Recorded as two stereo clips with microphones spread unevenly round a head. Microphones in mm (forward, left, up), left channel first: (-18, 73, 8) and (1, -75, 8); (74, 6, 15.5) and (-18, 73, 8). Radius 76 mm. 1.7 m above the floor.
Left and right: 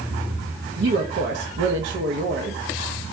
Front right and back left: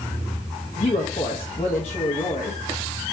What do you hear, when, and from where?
0.8 s a woman speaking: 85° right, 0.8 m